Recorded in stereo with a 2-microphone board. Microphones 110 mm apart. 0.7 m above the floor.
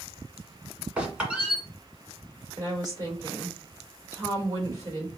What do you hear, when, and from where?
1.0 s a squeak: 10° right (ahead or behind), 1.7 m
2.6 s a woman speaking: 35° right (ahead or behind), 1.9 m